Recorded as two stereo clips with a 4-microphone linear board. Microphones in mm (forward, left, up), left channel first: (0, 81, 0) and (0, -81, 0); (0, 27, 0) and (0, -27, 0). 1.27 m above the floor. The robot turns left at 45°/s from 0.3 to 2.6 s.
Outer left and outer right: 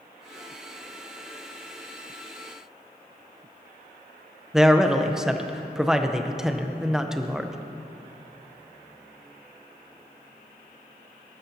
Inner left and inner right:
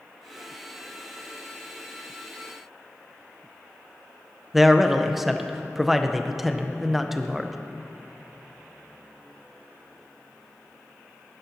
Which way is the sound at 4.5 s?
5° right (ahead or behind).